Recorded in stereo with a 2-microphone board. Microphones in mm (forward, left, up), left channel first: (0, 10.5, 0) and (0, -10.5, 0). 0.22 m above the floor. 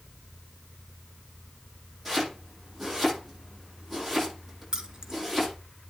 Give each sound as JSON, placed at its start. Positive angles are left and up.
{"t": 2.0, "sound": "chopping", "side_deg": -10, "distance_m": 9.5}
{"t": 4.7, "sound": "keys jangling", "side_deg": -35, "distance_m": 2.0}